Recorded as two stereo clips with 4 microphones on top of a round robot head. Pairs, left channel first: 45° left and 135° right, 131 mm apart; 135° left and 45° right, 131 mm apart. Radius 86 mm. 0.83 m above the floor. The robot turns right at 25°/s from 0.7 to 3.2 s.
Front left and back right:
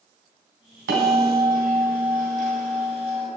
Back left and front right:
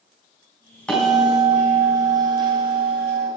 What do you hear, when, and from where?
0.9 s a bell: 145° right, 3.5 m; by 3.3 s 85° right, 3.5 m